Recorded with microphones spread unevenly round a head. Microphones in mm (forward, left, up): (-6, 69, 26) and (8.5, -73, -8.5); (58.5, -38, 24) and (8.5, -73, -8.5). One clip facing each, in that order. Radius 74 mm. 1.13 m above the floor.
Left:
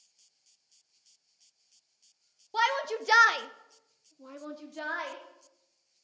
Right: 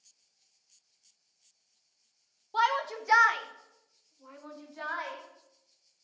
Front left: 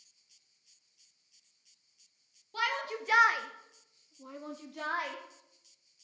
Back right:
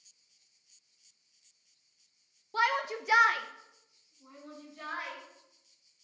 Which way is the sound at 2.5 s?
170° left.